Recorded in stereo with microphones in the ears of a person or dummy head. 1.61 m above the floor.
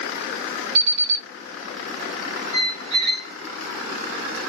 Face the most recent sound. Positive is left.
turn(degrees=-55)  # may be behind; listen again after turning